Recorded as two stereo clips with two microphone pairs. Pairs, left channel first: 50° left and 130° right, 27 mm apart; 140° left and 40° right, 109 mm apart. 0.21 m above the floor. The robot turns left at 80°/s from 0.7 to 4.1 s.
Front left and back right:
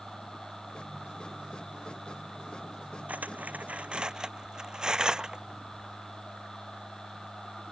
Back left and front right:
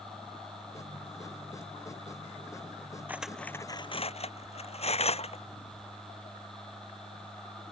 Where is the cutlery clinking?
110° right; by 5.4 s 170° left.